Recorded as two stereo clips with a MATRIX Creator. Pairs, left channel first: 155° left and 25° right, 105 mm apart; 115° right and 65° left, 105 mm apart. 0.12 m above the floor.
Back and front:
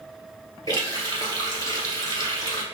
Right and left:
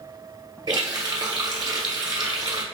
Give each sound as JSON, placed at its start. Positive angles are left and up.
{"t": 0.7, "sound": "a running tap", "azimuth_deg": 110, "distance_m": 1.3}